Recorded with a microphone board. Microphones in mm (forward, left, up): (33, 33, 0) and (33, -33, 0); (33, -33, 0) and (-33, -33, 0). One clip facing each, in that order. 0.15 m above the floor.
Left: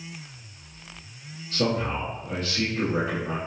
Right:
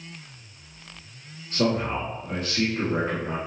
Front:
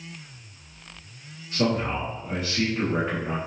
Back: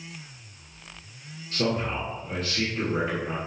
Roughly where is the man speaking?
Ahead right.